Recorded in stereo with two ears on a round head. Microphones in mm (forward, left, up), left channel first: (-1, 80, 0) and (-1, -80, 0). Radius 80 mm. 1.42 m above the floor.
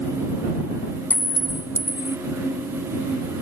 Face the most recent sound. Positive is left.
turn(degrees=10)  # may be behind; listen again after turning